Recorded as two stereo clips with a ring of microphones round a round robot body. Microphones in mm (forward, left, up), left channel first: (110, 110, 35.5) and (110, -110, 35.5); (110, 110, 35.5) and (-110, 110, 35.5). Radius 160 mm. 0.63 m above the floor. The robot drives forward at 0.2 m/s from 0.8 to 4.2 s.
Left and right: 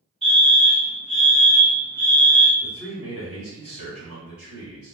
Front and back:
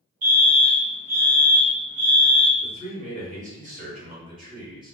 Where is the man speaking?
135° left, 1.4 m; by 5.0 s 145° left, 1.6 m.